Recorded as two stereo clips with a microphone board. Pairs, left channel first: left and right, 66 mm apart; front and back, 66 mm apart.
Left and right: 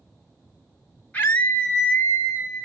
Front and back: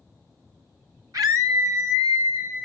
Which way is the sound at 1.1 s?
155° left.